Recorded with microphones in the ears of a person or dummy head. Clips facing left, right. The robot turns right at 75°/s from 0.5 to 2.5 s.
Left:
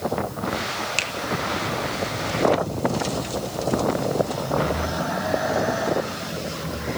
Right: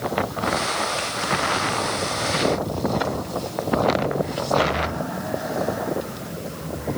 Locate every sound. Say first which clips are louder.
1.0 s a finger snap: right 3 dB; 85° left, 1.7 m; by 1.1 s 80° left, 1.7 m